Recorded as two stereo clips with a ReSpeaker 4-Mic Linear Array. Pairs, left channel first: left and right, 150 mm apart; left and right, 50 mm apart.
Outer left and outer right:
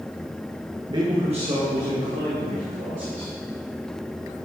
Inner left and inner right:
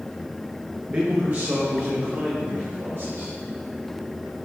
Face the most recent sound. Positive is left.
turn(degrees=-60)  # may be behind; listen again after turning